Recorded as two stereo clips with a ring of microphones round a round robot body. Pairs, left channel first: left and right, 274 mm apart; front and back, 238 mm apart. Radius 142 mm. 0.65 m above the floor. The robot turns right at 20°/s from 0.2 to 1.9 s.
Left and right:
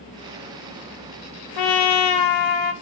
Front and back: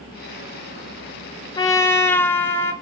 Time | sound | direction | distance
1.6 | a trumpet | 75° left | 0.6 m